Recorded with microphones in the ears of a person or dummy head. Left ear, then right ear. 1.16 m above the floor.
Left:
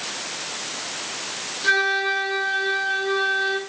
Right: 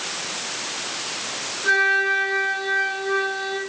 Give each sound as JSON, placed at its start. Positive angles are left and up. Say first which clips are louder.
{"t": 1.6, "sound": "a flute", "louder": "right 2 dB", "side_deg": 25, "distance_m": 2.5}